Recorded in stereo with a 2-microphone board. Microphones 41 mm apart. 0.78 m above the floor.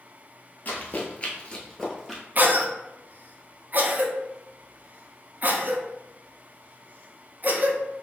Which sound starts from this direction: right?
A cough, at 2.4 s.